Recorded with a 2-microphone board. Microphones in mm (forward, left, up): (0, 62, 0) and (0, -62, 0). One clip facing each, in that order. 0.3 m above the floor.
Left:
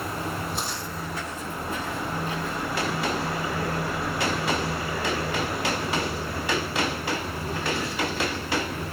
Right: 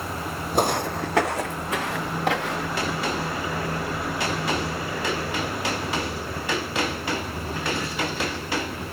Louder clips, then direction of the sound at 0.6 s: Right 10 dB; 55° right (ahead or behind).